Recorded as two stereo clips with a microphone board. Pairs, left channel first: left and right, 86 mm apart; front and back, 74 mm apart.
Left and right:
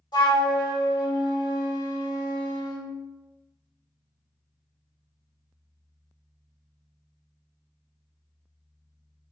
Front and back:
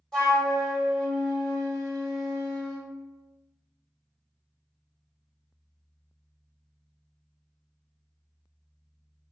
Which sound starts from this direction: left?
A flute, at 0.1 s.